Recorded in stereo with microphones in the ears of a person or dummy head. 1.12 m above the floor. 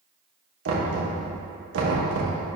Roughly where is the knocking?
Right.